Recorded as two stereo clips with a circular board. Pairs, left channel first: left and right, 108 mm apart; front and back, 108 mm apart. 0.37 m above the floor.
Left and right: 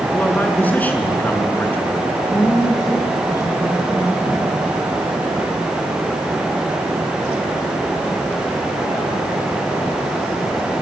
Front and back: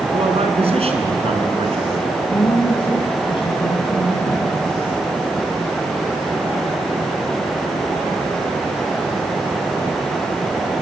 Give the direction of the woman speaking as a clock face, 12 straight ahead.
11 o'clock.